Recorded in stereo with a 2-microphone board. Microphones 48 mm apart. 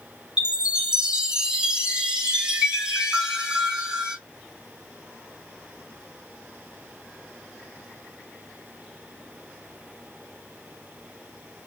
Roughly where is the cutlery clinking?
No cutlery clinking in this recording.